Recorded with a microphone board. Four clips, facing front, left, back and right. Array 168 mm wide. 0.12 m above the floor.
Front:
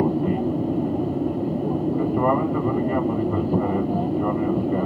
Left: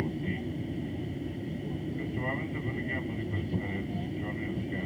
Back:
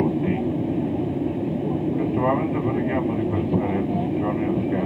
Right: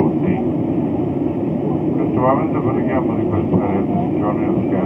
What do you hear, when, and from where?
0.0 s an aircraft: 85° right